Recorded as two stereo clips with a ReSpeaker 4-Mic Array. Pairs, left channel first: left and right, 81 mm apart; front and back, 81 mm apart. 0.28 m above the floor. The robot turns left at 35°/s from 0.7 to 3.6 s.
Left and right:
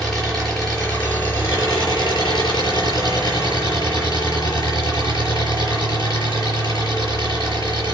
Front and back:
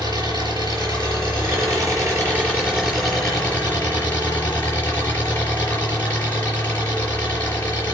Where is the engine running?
170° left, 5.5 m; by 7.9 s 70° left, 5.5 m.